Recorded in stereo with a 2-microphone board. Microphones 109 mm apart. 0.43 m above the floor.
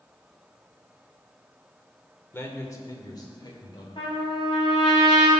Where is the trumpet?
55° left (ahead or behind), 3 m.